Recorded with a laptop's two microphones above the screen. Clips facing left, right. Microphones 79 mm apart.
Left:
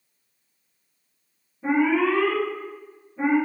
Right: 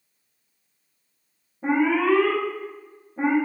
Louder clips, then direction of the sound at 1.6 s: Even; 55° right (ahead or behind).